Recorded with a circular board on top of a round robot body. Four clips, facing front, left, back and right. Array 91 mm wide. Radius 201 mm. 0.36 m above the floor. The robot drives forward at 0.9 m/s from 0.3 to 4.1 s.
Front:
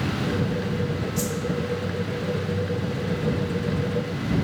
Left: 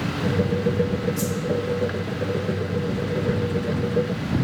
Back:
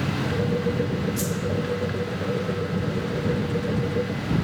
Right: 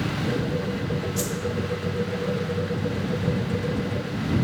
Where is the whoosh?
100° right, 1.6 m; by 1.4 s 110° right, 1.7 m.